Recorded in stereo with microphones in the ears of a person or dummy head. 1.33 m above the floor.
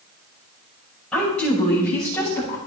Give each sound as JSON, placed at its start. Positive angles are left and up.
{"t": 1.1, "sound": "a woman speaking", "side_deg": 5, "distance_m": 6.0}